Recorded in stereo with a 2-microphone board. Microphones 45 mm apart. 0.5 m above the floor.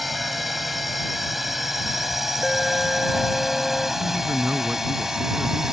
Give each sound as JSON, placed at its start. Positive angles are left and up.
{"t": 0.0, "sound": "a drone", "side_deg": -5}
{"t": 2.4, "sound": "an alarm", "side_deg": 5}
{"t": 4.0, "sound": "a man speaking", "side_deg": -40}